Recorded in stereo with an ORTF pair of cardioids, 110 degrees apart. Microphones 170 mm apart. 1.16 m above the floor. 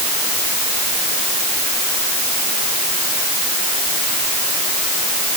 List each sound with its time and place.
Only background noise.